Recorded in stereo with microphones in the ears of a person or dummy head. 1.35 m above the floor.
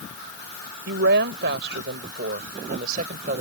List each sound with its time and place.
0.9 s a woman speaking: 65° right (ahead or behind); by 3.4 s 45° right (ahead or behind)